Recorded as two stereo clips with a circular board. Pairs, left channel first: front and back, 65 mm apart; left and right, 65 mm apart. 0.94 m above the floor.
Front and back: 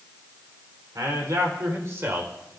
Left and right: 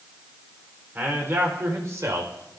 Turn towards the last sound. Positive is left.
turn(degrees=-120)